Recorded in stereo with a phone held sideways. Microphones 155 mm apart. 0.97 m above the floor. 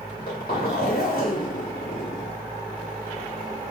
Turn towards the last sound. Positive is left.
turn(degrees=70)  # may be behind; listen again after turning